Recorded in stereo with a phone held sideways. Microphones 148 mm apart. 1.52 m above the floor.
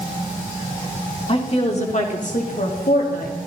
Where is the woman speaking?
40° left (ahead or behind), 3 m; by 3.4 s 80° left, 3 m.